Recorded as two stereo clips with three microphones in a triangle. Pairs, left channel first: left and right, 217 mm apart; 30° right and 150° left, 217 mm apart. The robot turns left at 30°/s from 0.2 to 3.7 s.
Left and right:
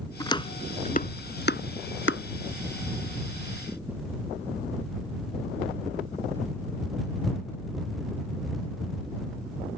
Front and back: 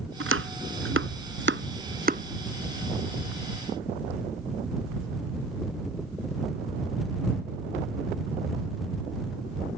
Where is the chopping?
165° left; by 2.2 s 100° left.